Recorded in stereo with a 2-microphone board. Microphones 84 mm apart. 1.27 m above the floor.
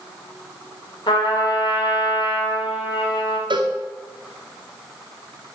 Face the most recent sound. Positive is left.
turn(degrees=-65)  # may be behind; listen again after turning